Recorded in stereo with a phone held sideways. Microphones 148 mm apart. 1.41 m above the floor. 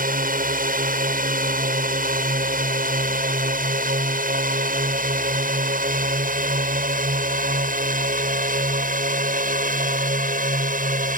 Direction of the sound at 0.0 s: 70° right (ahead or behind).